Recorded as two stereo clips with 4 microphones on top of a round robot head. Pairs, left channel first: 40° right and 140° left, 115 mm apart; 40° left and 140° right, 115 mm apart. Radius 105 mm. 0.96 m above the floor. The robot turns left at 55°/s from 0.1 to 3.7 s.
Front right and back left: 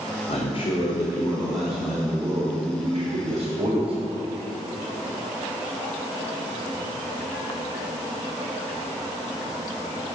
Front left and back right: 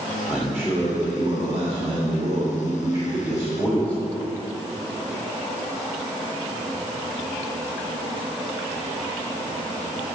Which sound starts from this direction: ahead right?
A man speaking, at 0.3 s.